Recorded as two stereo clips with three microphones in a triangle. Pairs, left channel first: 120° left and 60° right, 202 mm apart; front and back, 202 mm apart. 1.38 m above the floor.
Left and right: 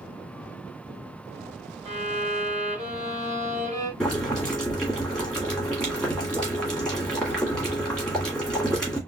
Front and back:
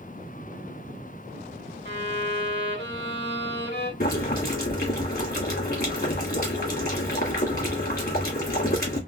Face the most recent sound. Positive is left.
turn(degrees=35)